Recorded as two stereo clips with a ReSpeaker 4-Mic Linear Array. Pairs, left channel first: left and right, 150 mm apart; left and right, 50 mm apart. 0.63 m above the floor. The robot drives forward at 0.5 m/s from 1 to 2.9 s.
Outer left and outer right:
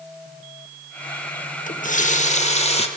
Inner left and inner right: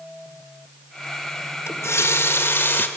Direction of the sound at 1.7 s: 65° left (ahead or behind).